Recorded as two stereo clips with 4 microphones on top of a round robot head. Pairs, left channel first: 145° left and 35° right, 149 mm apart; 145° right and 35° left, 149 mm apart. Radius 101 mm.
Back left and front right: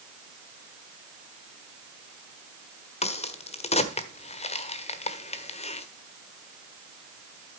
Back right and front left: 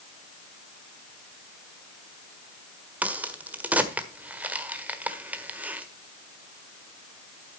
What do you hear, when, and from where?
3.0 s a crack: 110° left, 1.4 m